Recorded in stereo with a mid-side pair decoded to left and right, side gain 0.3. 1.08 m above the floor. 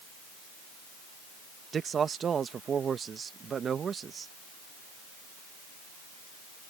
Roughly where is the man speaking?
Ahead right.